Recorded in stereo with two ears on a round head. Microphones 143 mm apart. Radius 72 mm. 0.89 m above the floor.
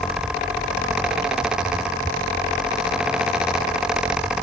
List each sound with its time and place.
Only background noise.